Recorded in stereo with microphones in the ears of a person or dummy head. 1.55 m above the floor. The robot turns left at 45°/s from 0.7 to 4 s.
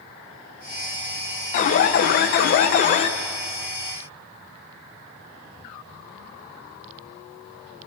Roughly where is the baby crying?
No baby crying in this recording.